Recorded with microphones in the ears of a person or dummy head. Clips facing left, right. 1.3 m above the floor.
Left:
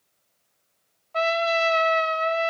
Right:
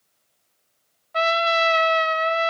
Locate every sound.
1.1 s a trumpet: 10° right (ahead or behind), 0.8 m